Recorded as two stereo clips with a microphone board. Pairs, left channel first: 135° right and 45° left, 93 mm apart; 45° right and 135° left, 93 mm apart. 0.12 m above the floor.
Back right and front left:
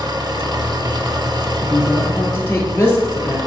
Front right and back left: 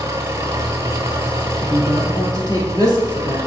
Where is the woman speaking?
70° right, 2 m.